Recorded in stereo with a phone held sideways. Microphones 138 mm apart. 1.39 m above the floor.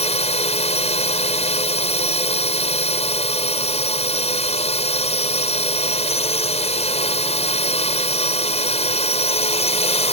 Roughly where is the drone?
Left.